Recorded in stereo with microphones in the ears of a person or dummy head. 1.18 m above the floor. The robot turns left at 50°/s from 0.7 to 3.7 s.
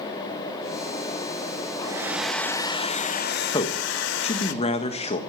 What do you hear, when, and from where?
1.8 s a hair dryer: 155° right, 0.9 m; by 4.5 s 115° left, 0.9 m
3.5 s a man speaking: 20° left (ahead or behind), 1.4 m; by 5.2 s 25° left (ahead or behind), 1.4 m